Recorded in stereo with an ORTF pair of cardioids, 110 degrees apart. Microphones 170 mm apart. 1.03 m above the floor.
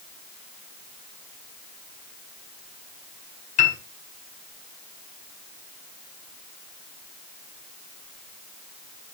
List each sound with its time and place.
3.6 s a piano: 50° left, 3.5 m